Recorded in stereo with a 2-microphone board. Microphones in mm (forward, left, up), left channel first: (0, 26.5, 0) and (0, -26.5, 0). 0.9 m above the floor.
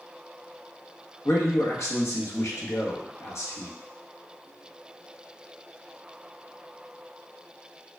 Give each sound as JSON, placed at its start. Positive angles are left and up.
{"t": 1.2, "sound": "a man speaking", "side_deg": 60, "distance_m": 1.0}